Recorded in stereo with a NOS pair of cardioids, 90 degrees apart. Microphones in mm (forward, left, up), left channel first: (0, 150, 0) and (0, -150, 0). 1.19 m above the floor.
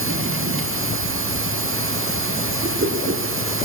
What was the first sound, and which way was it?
A machine running, 45° right.